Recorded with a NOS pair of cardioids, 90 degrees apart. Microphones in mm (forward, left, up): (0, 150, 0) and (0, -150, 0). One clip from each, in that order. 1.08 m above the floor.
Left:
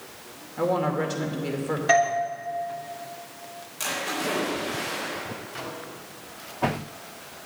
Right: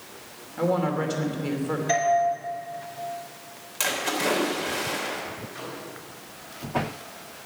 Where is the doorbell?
55° left, 3.5 m.